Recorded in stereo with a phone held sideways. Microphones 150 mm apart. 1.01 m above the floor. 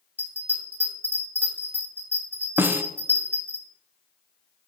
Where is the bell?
10° left (ahead or behind), 3 m.